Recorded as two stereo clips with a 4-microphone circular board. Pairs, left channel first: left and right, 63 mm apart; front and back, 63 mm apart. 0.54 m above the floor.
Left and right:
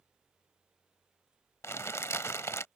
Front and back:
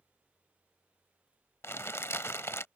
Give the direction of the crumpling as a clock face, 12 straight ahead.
10 o'clock.